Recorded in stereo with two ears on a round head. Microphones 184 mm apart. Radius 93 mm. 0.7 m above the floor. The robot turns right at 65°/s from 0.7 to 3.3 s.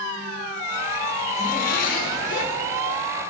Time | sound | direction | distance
1.4 | a zipper | 50° left | 1.5 m